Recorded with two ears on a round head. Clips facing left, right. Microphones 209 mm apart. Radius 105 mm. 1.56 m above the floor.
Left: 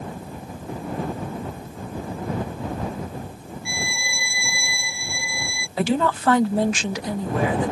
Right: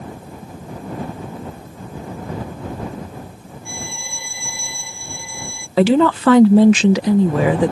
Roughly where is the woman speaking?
Right.